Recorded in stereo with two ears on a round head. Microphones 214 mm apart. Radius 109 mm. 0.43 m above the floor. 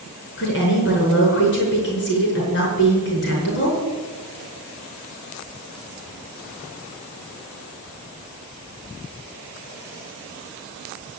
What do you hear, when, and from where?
0.4 s a woman speaking: 45° left (ahead or behind), 5.5 m